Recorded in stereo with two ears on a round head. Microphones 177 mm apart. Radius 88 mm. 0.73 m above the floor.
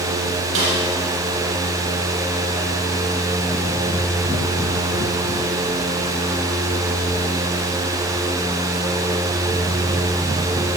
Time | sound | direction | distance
0.6 | a snare drum | 70° right (ahead or behind) | 6.5 m